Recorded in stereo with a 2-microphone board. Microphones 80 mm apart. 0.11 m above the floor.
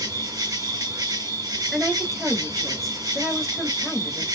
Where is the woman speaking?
Centre (ahead or behind), 1.8 m.